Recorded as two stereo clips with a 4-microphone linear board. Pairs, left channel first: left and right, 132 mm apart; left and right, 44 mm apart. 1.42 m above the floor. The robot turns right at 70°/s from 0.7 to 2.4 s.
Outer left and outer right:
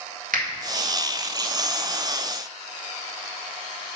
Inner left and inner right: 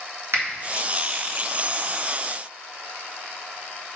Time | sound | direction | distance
0.3 | a finger snap | 85° right | 1.9 m